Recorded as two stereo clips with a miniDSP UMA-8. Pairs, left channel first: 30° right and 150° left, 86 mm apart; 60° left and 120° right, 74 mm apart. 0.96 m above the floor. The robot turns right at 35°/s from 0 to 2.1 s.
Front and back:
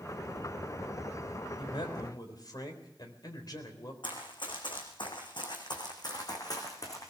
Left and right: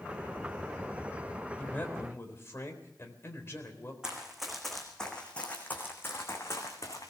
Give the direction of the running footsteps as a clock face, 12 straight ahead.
1 o'clock.